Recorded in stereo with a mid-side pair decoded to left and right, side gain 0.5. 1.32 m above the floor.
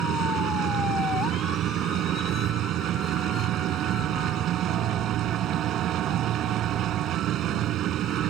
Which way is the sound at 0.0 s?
65° right.